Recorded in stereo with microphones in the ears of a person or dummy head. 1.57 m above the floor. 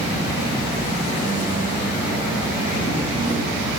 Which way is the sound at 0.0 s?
15° right (ahead or behind).